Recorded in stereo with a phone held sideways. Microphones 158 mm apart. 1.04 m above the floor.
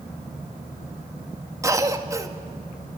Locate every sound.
1.6 s a cough: 20° right (ahead or behind), 1.7 m